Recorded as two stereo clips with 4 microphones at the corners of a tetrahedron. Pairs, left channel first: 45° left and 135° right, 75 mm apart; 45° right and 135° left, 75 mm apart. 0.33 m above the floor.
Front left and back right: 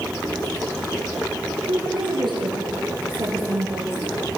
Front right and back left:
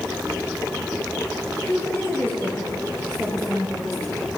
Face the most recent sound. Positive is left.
turn(degrees=-135)